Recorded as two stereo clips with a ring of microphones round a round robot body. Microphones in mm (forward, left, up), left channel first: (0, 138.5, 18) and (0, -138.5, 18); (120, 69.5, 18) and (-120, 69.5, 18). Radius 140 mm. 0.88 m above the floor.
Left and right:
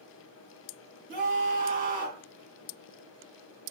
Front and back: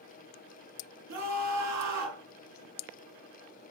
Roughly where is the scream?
Behind right.